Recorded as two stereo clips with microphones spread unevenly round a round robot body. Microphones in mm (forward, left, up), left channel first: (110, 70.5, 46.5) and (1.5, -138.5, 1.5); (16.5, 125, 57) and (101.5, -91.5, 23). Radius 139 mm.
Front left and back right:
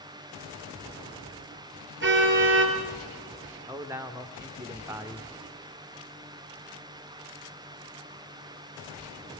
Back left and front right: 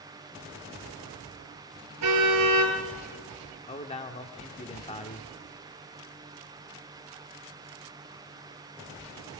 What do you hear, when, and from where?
2.0 s a car horn: 80° right, 5 m
3.7 s a man speaking: 175° left, 1.6 m